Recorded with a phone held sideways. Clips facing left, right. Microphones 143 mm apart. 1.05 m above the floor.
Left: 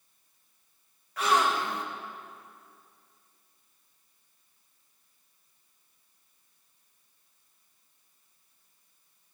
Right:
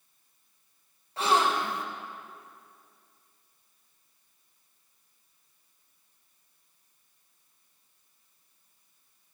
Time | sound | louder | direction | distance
1.2 | a gasp | right 1 dB | 30° right (ahead or behind) | 1.1 m